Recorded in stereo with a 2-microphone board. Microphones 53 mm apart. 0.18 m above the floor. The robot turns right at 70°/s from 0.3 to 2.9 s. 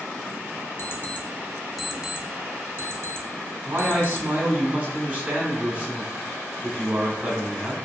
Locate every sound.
0.8 s an alarm clock: 55° left (ahead or behind), 0.6 m; by 4.3 s 55° right (ahead or behind), 0.6 m
3.6 s a man speaking: 35° right (ahead or behind), 1.3 m